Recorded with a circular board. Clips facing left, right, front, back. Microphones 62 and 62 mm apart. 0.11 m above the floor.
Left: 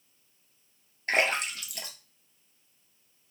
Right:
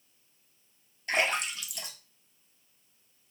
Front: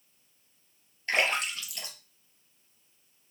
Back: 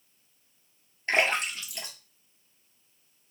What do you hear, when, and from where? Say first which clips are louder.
1.1 s a splash: left 2 dB, back 2 dB; 120° left, 1.3 m